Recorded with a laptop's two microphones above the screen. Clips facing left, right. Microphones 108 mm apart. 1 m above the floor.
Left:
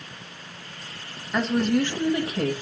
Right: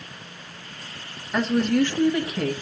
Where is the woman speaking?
5° right (ahead or behind), 1.4 m; by 2.5 s 35° left (ahead or behind), 1.7 m.